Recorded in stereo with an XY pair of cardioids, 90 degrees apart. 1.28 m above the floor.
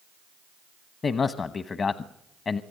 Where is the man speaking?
50° left, 1.0 m.